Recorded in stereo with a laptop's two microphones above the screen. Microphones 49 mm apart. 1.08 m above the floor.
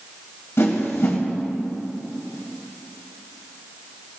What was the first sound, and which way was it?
A whoosh, 65° left (ahead or behind).